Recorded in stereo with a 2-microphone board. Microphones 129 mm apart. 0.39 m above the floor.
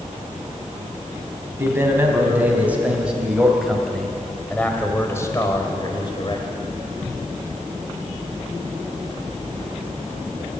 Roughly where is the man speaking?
Centre.